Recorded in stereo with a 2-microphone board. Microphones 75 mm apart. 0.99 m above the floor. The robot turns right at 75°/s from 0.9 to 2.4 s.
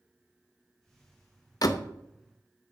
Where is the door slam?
60° left (ahead or behind), 0.5 m; by 1.9 s 35° left (ahead or behind), 0.5 m.